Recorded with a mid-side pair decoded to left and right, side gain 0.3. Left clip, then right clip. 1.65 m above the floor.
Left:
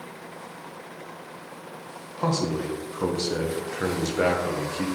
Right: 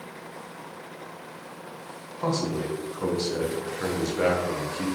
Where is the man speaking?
50° left, 1.2 m.